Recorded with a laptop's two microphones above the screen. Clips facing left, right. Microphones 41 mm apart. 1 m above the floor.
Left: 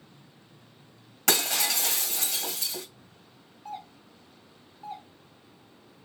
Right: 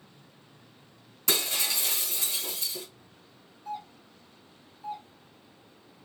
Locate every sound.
1.3 s breaking glass: 65° left (ahead or behind), 1.9 m
3.6 s a doorbell: 50° left (ahead or behind), 1.7 m